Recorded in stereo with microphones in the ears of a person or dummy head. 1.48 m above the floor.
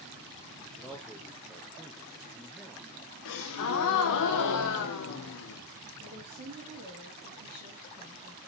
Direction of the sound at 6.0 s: 45° right (ahead or behind).